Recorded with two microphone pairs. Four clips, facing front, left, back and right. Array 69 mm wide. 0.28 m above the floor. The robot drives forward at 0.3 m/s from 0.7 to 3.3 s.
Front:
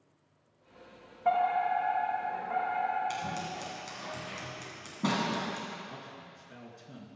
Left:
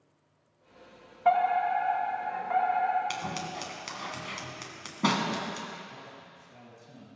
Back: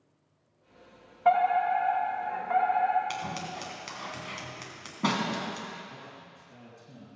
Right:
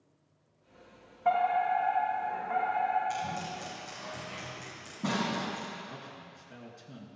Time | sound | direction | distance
1.2 | a fire alarm | 150° left | 2.5 m
3.1 | scissors | 120° left | 2.5 m
5.9 | a man speaking | 50° right | 4 m